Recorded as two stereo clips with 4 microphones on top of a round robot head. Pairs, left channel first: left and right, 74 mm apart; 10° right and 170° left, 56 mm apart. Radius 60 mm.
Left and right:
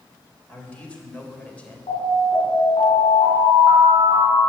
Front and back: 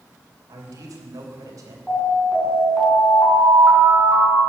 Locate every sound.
0.5 s a man speaking: 165° left, 3.5 m
1.9 s an alarm: 80° left, 7.5 m